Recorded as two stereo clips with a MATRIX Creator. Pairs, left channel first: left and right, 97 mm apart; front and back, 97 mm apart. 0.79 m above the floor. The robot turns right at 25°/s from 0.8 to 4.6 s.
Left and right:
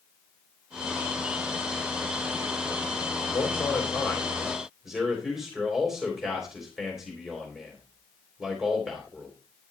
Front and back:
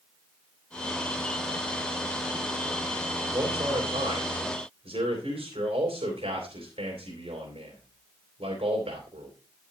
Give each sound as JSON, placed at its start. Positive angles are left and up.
{"t": 3.3, "sound": "a man speaking", "azimuth_deg": 150, "distance_m": 3.5}